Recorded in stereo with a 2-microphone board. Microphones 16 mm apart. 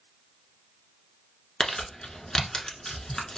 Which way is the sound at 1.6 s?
55° left (ahead or behind).